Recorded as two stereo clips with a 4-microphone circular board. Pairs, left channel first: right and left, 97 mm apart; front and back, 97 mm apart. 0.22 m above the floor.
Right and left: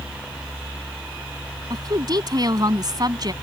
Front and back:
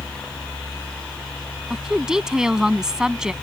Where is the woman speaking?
100° left.